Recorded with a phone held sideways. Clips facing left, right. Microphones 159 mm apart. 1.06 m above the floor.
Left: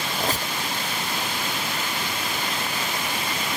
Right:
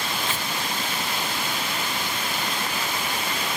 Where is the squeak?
40° left (ahead or behind), 0.6 m.